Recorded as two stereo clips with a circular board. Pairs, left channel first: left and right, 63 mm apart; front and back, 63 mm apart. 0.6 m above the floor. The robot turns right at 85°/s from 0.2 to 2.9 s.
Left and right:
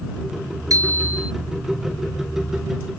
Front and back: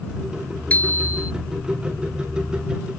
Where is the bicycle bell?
65° right; by 1.3 s 10° right.